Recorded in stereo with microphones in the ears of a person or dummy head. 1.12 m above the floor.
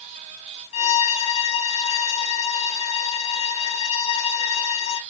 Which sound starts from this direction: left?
A violin, at 0.7 s.